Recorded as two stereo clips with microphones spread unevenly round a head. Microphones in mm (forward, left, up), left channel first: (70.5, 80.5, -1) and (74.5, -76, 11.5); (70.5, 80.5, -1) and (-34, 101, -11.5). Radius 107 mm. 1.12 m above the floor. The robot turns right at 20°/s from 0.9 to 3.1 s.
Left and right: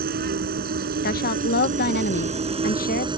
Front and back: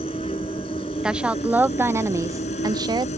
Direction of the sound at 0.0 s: 75° right.